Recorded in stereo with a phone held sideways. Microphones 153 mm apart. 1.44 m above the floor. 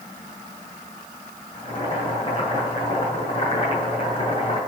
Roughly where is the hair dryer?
No hair dryer in this recording.